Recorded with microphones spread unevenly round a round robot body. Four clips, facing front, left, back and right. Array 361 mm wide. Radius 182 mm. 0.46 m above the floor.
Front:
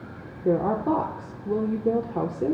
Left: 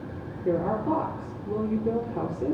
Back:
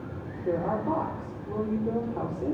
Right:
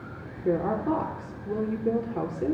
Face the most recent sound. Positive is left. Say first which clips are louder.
# even, front 5 dB
turn(degrees=-5)